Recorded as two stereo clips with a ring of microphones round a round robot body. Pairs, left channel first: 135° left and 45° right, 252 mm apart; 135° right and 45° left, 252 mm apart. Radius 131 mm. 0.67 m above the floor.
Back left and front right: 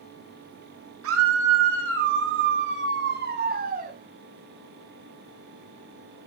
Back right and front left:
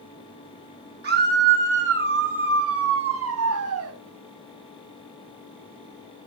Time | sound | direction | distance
1.0 | a scream | 10° right | 6 m